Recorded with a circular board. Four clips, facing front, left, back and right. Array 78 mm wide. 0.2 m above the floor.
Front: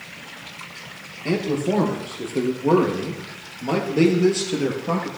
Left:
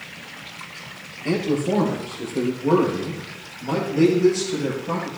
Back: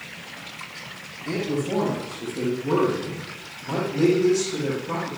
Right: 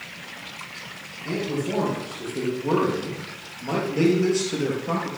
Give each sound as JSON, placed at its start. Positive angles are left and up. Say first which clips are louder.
{"t": 1.2, "sound": "a man speaking", "louder": "left 5 dB, front 4 dB", "azimuth_deg": 30, "distance_m": 3.5}